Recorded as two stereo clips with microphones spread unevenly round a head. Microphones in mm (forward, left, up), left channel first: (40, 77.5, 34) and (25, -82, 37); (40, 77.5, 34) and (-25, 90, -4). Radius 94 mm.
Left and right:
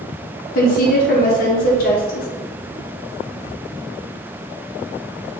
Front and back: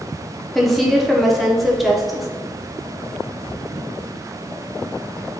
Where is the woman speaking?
60° left, 0.7 m.